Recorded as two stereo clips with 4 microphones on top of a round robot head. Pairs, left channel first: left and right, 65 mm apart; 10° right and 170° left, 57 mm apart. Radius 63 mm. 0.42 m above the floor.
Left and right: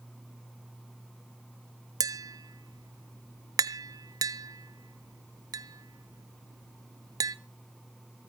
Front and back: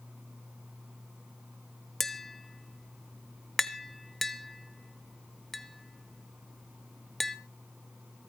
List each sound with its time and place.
2.0 s tapping: 100° right, 0.7 m